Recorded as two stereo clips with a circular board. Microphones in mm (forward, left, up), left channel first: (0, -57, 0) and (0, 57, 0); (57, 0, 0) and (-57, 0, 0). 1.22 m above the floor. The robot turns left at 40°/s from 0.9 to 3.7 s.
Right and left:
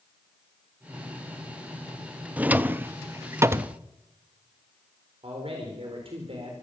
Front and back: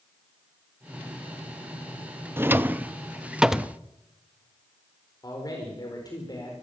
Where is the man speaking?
55° left, 4 m.